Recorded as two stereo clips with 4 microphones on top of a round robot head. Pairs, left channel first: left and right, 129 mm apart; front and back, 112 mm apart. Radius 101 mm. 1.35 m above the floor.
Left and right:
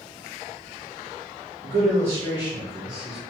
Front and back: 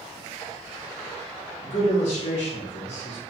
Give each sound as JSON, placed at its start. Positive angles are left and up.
{"t": 1.6, "sound": "a man speaking", "azimuth_deg": -20, "distance_m": 2.0}